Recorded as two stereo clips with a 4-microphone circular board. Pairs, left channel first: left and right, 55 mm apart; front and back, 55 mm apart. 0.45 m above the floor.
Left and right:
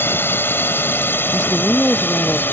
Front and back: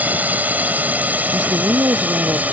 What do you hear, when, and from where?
0.0 s a drone: 130° left
1.3 s a woman speaking: 165° left